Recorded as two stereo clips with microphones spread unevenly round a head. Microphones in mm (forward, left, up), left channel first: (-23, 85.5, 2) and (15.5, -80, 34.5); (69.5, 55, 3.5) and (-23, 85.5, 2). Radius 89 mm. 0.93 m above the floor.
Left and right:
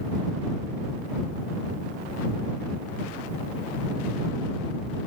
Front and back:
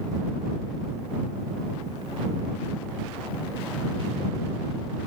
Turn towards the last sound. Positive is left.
No sound to turn to.